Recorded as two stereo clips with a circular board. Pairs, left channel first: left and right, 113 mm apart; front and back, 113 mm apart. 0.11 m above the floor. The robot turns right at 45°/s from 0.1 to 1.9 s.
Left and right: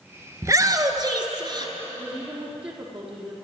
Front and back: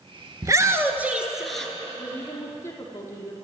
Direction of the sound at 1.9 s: 60° right.